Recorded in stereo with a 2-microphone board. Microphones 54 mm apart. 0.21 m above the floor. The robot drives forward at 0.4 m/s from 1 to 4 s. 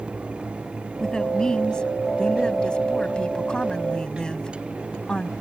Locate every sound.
1.0 s a woman speaking: 15° left (ahead or behind)